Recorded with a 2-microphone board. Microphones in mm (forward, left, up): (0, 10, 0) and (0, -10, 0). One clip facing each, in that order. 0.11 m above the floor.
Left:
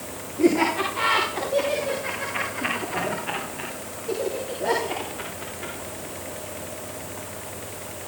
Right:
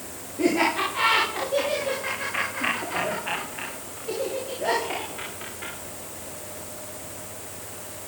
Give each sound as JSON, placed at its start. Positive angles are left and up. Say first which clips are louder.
{"t": 0.4, "sound": "laughter", "louder": "left 2 dB", "side_deg": -25, "distance_m": 8.5}